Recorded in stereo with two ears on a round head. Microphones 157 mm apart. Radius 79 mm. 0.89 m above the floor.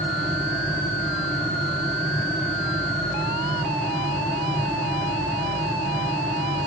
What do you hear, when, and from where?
Only background noise.